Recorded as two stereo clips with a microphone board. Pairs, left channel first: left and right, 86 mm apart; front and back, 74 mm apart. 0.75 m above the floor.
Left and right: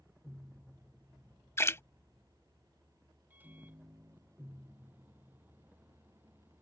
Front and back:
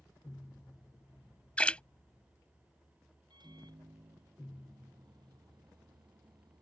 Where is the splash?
60° left.